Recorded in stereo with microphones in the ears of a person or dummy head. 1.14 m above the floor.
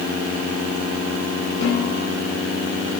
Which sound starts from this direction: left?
A snare drum, at 1.6 s.